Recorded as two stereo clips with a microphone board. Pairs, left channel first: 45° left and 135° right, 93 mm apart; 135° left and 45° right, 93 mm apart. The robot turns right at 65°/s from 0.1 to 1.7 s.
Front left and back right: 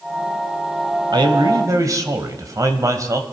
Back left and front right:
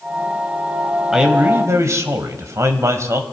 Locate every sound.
1.1 s a man speaking: 130° right, 1.5 m; by 3.2 s 95° right, 1.5 m